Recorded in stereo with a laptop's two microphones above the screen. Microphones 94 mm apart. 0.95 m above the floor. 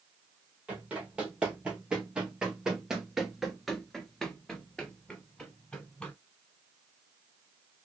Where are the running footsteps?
10° right (ahead or behind), 1.8 m; by 6.1 s 10° left (ahead or behind), 1.5 m.